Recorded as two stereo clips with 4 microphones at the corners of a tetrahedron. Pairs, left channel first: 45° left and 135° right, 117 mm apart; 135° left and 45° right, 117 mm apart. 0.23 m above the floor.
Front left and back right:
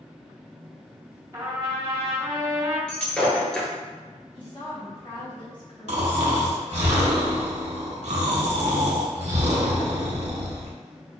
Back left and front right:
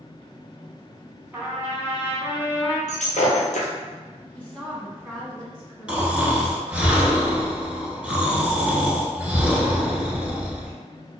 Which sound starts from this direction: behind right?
Snoring, at 5.9 s.